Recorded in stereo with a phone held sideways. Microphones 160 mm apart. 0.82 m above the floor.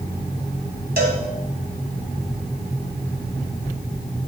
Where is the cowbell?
70° right (ahead or behind), 1.8 m.